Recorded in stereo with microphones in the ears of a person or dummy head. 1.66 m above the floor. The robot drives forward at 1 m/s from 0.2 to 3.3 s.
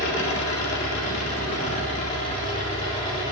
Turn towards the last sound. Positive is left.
turn(degrees=25)  # may be behind; listen again after turning